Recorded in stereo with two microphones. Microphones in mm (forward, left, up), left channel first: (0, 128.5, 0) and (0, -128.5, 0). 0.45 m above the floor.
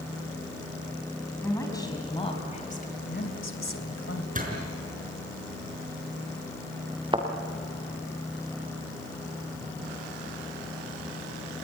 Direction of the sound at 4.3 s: 30° right (ahead or behind).